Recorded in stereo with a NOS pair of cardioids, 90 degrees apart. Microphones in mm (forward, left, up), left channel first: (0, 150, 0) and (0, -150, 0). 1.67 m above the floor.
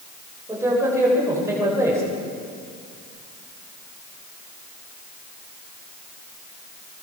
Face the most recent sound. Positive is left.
turn(degrees=-10)